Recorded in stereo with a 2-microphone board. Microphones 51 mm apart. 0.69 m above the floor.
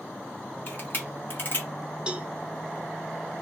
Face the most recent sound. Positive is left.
turn(degrees=-20)  # may be behind; listen again after turning